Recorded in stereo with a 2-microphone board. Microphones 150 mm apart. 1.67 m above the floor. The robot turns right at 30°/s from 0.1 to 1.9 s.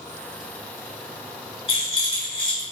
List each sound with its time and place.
1.7 s a rattle: 35° left (ahead or behind), 1.7 m